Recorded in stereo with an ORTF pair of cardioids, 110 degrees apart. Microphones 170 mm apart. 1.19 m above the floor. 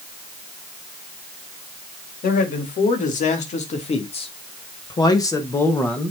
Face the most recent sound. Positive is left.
turn(degrees=5)